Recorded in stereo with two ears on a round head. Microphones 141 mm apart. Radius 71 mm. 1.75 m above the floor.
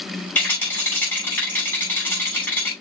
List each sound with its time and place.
0.3 s a rattle: 10° left (ahead or behind), 6 m